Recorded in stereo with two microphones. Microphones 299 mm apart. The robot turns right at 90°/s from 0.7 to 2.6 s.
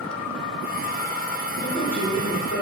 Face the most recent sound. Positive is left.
turn(degrees=120)